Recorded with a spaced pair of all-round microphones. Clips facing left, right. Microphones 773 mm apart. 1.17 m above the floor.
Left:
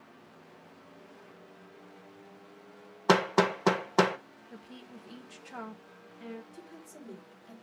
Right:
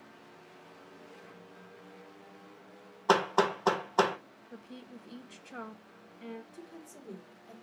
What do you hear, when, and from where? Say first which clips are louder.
3.1 s hammering: left 2 dB; 55° left (ahead or behind), 1.0 m
4.5 s a woman speaking: right 1 dB; 35° left (ahead or behind), 1.0 m
6.5 s a woman speaking: even; 50° left (ahead or behind), 2.5 m